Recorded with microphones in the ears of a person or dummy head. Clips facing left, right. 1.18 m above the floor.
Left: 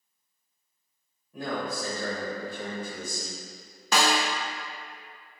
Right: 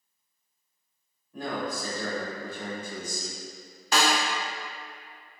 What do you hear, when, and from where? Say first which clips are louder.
1.3 s a man speaking: even; 10° left (ahead or behind), 1.6 m
3.9 s a snare drum: left 1 dB; 70° left (ahead or behind), 0.7 m